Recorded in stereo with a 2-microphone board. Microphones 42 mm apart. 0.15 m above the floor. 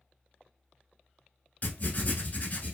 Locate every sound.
1.6 s writing: 45° left (ahead or behind), 0.8 m